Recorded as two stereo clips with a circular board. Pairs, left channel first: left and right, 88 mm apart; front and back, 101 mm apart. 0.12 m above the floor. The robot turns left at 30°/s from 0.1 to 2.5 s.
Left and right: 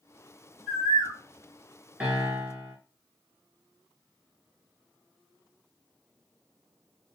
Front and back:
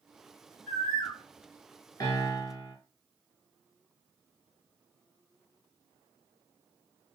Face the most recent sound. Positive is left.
turn(degrees=-40)